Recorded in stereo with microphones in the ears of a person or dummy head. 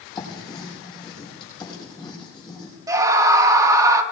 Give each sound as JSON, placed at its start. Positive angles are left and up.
{"t": 0.1, "sound": "writing", "side_deg": 25, "distance_m": 6.5}
{"t": 2.9, "sound": "a scream", "side_deg": -20, "distance_m": 1.3}